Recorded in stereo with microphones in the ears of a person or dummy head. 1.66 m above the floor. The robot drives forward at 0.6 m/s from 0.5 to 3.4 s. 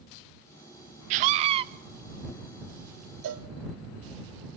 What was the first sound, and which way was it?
A scream, 40° right (ahead or behind).